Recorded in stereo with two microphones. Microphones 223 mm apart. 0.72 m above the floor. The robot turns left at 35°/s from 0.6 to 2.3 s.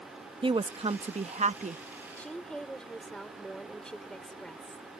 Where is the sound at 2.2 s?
10° left (ahead or behind); by 4.9 s 5° left (ahead or behind).